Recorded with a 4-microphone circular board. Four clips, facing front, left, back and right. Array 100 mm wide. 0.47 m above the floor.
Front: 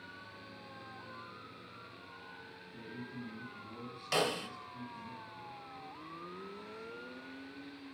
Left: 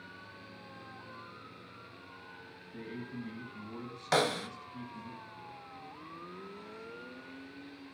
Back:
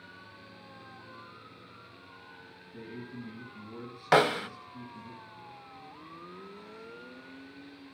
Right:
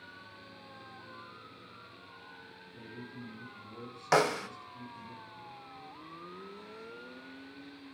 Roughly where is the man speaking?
Left.